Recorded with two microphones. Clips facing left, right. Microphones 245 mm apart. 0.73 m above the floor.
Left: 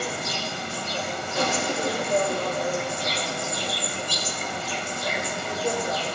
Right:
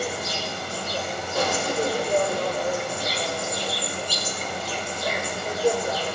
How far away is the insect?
About 2 m.